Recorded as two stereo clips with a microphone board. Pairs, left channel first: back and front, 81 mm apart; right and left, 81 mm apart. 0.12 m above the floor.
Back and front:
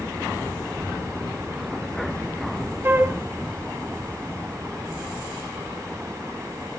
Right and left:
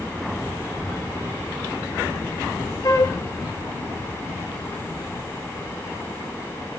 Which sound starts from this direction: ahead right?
A flute, at 2.8 s.